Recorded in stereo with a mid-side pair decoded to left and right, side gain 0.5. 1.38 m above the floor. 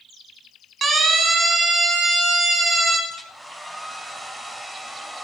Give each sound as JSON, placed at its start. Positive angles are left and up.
{"t": 0.8, "sound": "a siren", "azimuth_deg": -45, "distance_m": 9.5}
{"t": 3.1, "sound": "a hair dryer", "azimuth_deg": -20, "distance_m": 8.0}